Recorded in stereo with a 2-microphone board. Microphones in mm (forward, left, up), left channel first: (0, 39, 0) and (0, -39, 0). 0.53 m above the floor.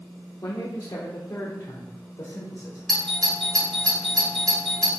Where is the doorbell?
10° left (ahead or behind), 2.5 m.